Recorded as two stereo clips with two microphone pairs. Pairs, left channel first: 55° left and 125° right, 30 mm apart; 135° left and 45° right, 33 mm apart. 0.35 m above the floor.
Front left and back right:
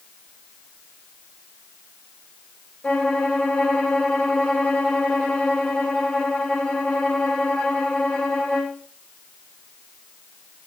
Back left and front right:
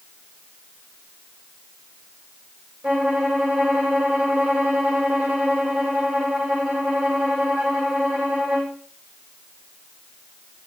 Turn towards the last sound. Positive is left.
turn(degrees=-5)